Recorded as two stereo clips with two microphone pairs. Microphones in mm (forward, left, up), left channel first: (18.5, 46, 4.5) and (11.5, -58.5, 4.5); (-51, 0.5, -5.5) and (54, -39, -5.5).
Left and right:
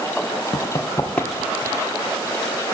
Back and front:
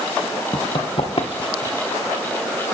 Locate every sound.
0.5 s running footsteps: 125° left, 0.9 m; by 1.9 s 140° right, 0.8 m